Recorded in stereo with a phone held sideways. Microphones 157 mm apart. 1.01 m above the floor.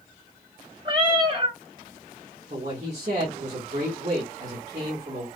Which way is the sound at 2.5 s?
45° right (ahead or behind).